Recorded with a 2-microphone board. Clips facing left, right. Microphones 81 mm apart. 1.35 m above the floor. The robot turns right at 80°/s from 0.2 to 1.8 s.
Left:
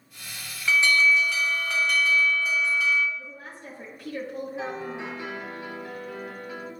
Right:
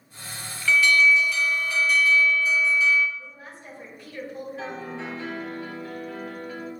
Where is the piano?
15° left (ahead or behind), 1.0 m.